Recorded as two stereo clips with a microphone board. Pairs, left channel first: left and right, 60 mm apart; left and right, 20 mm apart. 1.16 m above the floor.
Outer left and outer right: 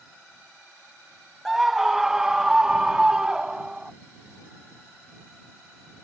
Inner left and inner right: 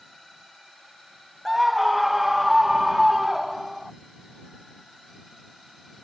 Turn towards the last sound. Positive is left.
turn(degrees=-15)  # may be behind; listen again after turning